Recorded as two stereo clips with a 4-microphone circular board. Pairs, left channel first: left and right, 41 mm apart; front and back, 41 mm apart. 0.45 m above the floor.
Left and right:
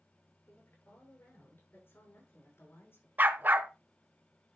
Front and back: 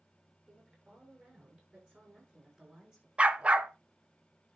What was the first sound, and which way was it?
A woman speaking, 125° left.